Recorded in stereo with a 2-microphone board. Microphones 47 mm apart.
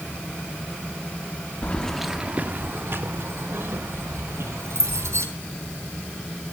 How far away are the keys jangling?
About 0.9 m.